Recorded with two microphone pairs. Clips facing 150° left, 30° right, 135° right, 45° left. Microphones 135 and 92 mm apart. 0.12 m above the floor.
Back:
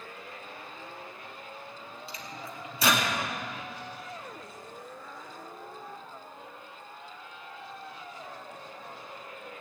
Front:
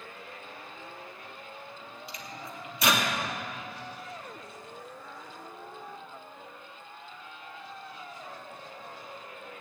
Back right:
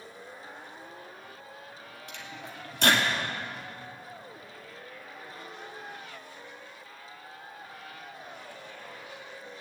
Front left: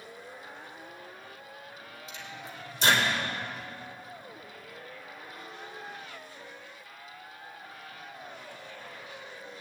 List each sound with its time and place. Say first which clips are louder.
2.1 s a microwave: even, back right 1 dB; 150° right, 2.5 m